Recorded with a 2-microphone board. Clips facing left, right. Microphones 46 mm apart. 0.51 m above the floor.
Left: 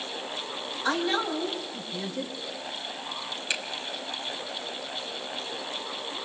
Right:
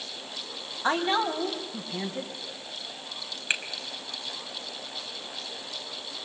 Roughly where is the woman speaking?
Right.